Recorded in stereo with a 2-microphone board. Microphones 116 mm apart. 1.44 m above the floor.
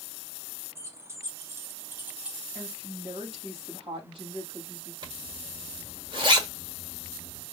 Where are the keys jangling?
25° right (ahead or behind), 1.0 m; by 2.5 s 5° right (ahead or behind), 0.6 m.